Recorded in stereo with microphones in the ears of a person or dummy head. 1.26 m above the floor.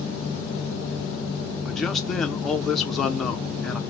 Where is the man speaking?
Centre (ahead or behind), 0.7 m.